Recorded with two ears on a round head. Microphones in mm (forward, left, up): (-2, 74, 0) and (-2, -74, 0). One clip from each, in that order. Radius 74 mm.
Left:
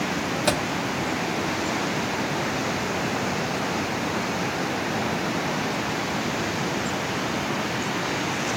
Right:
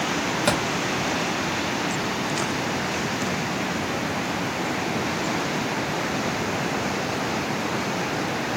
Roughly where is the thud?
Centre.